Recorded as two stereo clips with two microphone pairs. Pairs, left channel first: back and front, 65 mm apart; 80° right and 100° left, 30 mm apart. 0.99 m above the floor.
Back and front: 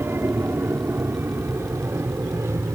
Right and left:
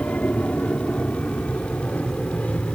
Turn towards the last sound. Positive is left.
turn(degrees=-40)